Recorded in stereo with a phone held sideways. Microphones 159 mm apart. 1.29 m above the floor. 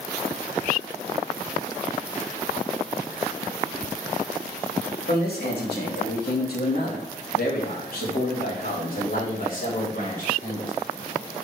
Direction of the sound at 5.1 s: 80° left.